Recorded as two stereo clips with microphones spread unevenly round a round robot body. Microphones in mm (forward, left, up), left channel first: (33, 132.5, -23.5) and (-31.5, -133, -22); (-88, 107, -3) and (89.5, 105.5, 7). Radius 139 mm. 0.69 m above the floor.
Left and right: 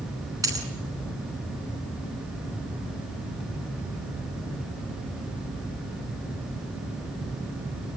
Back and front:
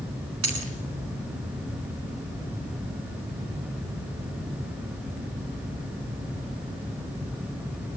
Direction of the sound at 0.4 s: 25° right.